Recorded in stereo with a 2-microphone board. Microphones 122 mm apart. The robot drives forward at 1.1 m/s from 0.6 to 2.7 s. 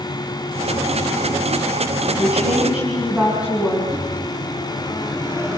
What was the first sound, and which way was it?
A woman speaking, 10° right (ahead or behind).